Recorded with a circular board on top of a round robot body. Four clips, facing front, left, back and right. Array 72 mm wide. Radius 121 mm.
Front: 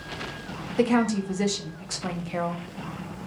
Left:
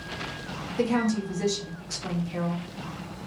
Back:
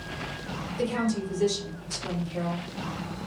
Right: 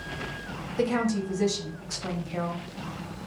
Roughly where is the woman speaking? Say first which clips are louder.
Left 1 dB, front 6 dB; ahead.